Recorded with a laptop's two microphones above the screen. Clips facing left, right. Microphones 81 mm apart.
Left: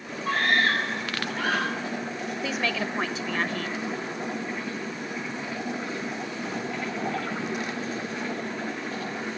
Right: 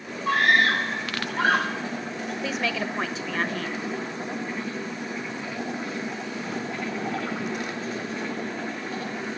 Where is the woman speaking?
Centre (ahead or behind), 1.0 m.